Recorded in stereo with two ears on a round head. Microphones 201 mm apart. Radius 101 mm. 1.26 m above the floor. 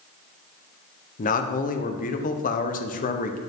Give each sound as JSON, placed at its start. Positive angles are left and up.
{"t": 1.2, "sound": "a man speaking", "side_deg": 35, "distance_m": 0.6}